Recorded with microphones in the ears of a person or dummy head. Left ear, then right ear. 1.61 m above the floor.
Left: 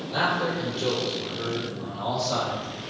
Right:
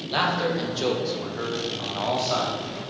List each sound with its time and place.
0.1 s a man speaking: 75° right (ahead or behind), 1.2 m; by 2.6 s 20° right (ahead or behind), 1.1 m